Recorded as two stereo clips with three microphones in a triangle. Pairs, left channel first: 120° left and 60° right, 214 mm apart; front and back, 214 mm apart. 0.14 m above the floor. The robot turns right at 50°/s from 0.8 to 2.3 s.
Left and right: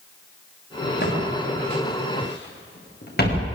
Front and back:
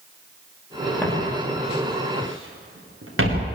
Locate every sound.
1.0 s footsteps: 80° left, 9 m; by 3.5 s 165° left, 8.5 m